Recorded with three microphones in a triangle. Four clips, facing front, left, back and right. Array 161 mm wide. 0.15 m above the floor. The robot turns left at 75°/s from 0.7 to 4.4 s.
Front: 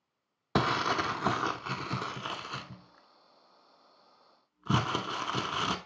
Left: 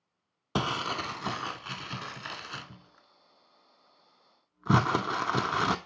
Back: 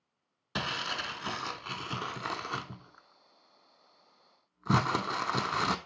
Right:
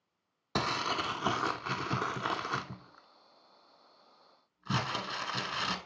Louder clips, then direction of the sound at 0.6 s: Left 1 dB, front 8 dB; 20° left.